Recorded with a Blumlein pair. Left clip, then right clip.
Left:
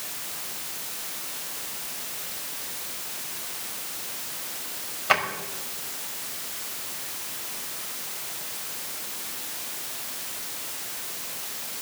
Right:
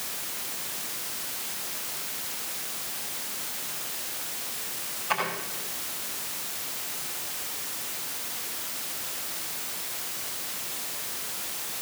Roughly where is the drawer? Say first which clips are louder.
Left 6 dB; ahead left.